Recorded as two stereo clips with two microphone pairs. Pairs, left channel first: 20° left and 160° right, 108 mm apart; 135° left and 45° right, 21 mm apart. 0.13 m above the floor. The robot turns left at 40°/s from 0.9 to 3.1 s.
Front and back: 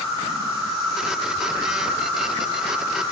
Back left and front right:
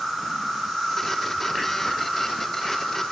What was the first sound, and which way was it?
An insect, 135° right.